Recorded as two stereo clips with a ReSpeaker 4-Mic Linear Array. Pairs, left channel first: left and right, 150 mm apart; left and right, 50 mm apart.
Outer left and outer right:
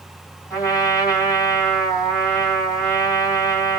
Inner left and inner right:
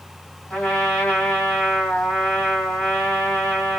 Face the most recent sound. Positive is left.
turn(degrees=20)  # may be behind; listen again after turning